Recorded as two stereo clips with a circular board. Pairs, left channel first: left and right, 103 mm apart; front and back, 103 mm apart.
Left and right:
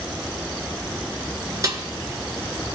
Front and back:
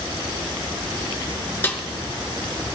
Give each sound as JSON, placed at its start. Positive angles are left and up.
{"t": 1.6, "sound": "a snare drum", "azimuth_deg": -60, "distance_m": 1.3}